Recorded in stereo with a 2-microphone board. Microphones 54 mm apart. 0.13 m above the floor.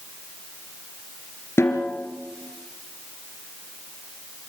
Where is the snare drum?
50° left (ahead or behind), 2.5 m.